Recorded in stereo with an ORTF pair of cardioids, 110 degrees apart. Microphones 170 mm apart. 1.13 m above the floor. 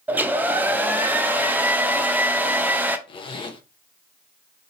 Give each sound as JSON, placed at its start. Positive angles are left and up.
{"t": 0.1, "sound": "a hair dryer", "azimuth_deg": -10, "distance_m": 0.6}
{"t": 3.1, "sound": "a zipper", "azimuth_deg": 30, "distance_m": 0.8}